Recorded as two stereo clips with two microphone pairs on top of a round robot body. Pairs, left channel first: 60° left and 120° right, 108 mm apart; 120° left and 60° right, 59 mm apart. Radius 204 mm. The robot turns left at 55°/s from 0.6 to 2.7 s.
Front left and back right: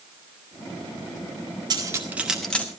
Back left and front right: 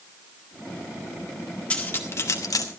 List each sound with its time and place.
1.7 s cutlery clinking: 170° right, 1.0 m; by 2.6 s 135° left, 1.0 m